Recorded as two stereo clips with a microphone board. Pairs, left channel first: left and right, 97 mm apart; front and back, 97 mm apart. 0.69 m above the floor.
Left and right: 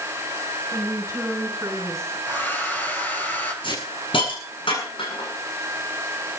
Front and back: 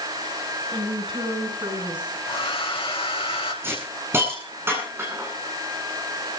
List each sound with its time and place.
0.7 s a woman speaking: 150° right, 6 m
2.3 s a hair dryer: 20° left, 3 m
3.6 s a hiss: 115° left, 8 m